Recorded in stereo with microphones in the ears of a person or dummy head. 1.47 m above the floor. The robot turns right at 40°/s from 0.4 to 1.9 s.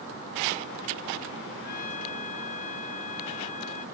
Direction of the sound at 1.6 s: 55° left (ahead or behind).